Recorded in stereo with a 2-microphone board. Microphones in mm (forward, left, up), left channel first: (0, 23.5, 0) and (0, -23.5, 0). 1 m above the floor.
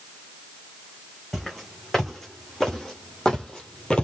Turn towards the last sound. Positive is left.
turn(degrees=20)  # may be behind; listen again after turning